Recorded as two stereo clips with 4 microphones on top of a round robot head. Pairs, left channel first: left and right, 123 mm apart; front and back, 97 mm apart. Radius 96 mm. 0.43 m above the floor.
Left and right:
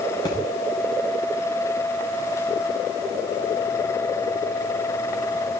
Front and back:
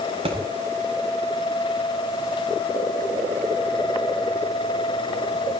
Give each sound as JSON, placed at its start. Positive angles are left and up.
{"t": 0.2, "sound": "a thud", "azimuth_deg": 155, "distance_m": 8.5}